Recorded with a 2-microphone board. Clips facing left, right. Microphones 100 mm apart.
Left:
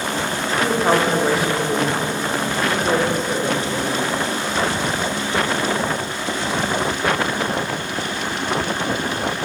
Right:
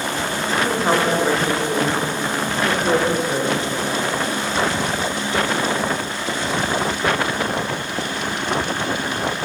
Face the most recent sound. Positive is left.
turn(degrees=-15)  # may be behind; listen again after turning